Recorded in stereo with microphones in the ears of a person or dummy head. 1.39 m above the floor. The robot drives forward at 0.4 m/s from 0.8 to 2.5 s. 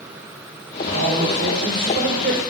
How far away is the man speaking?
About 1.5 m.